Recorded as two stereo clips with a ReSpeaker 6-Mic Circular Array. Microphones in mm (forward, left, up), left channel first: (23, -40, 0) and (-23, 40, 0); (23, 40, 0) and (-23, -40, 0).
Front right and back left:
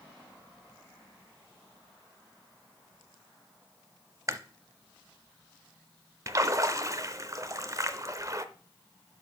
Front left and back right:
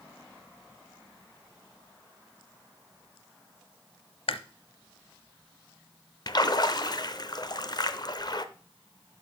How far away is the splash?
About 0.6 m.